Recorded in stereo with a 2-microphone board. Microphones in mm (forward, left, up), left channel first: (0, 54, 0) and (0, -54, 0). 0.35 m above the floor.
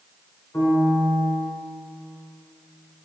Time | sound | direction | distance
0.5 | a piano | 15° left (ahead or behind) | 1.6 m